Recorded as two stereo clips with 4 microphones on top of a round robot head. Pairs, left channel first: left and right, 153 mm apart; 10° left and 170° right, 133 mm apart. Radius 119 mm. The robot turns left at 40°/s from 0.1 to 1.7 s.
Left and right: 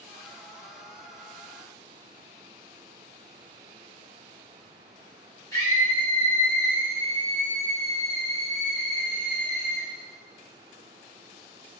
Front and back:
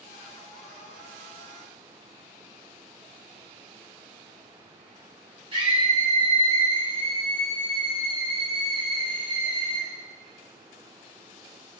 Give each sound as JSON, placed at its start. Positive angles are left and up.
{"t": 5.5, "sound": "a scream", "azimuth_deg": 155, "distance_m": 2.0}